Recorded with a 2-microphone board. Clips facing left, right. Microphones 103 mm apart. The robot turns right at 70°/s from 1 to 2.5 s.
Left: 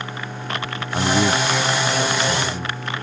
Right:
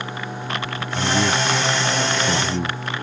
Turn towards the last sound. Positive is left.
turn(degrees=-65)  # may be behind; listen again after turning